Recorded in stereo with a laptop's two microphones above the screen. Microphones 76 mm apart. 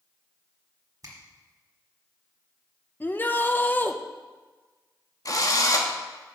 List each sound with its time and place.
1.0 s a finger snap: 50° right (ahead or behind), 1.6 m
3.0 s a shout: 25° left (ahead or behind), 0.6 m
5.2 s a drill: 50° left (ahead or behind), 0.9 m